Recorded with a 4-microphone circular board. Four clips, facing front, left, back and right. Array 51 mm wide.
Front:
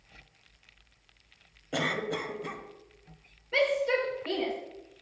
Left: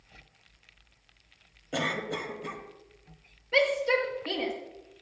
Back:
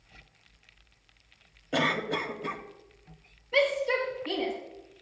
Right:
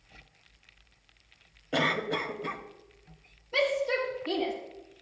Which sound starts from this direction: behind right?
A cough, at 1.7 s.